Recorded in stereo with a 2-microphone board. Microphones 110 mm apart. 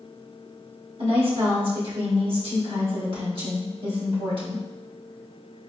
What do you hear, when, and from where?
1.0 s a woman speaking: 55° right (ahead or behind), 1.4 m